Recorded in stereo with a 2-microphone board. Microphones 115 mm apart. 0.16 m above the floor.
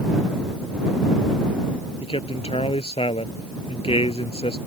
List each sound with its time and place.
2.0 s a man speaking: 60° left (ahead or behind)